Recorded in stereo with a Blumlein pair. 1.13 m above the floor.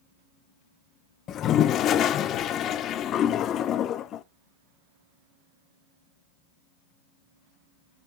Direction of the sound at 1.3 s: 30° left.